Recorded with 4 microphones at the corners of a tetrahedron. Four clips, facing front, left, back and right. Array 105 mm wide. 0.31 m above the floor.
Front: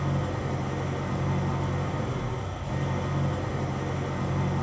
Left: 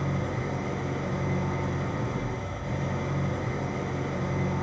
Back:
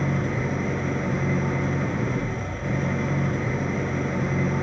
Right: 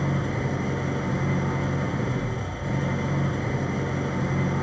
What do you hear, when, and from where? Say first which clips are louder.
0.0 s an engine running: right 3 dB, back 4 dB; 155° right, 4 m